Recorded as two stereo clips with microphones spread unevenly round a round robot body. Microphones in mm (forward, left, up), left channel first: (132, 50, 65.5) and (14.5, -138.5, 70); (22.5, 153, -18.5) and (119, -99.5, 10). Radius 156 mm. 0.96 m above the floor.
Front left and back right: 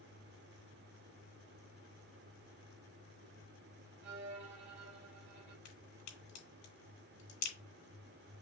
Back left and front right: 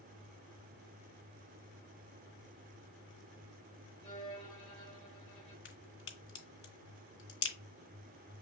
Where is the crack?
70° left, 2.5 m.